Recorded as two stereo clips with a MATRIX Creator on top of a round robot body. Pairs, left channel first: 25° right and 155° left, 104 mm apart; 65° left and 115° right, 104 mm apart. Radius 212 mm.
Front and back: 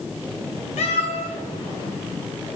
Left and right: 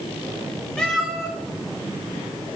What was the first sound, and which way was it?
A cat meowing, 15° right.